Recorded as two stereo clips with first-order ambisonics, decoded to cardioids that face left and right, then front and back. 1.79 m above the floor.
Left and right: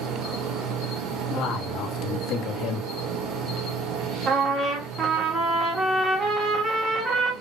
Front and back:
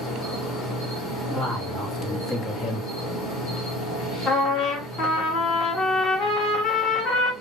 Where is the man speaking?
60° left, 1.3 m.